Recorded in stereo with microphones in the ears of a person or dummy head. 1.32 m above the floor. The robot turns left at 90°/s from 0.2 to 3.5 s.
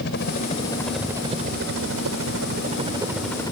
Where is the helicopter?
55° left (ahead or behind); by 3.5 s 20° left (ahead or behind).